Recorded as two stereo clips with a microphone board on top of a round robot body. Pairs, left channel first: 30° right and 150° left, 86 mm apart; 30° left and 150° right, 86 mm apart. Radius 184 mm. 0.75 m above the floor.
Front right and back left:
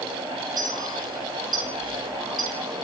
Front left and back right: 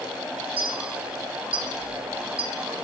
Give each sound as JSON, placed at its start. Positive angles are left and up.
{"t": 0.6, "sound": "a clink", "azimuth_deg": -165, "distance_m": 5.5}